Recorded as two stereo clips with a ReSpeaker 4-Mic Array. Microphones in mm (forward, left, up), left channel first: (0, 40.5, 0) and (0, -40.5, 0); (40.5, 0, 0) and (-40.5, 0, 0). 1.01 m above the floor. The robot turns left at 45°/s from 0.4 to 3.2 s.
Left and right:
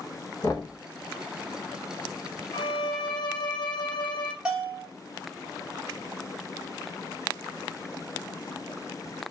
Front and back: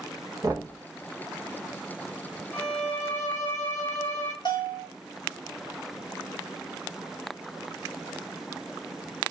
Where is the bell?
15° right, 1.2 m.